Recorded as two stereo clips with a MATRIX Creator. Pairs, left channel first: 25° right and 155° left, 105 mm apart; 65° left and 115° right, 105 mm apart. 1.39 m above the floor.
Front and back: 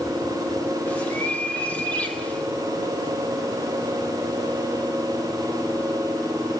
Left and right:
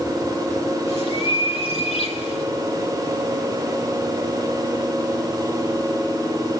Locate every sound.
0.9 s a bird: 50° left, 3 m